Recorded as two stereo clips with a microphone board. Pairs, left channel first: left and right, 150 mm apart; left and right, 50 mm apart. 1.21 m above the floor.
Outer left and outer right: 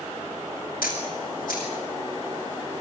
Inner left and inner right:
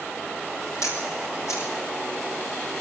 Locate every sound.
0.8 s a camera shutter: 70° left (ahead or behind), 7 m